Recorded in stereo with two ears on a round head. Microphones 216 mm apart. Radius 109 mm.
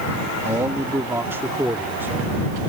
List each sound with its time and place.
0.5 s a man speaking: 10° right (ahead or behind)